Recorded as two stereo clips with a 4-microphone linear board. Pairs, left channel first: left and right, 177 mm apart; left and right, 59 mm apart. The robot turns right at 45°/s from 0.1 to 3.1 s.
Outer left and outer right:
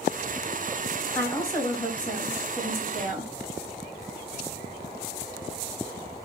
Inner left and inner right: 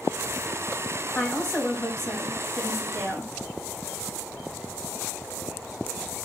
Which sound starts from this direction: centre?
A woman speaking, at 1.1 s.